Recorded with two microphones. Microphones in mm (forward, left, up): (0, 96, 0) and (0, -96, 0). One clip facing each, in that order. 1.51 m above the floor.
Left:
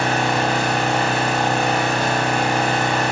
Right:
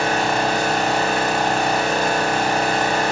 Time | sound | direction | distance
0.0 | an engine running | 40° right (ahead or behind) | 3 m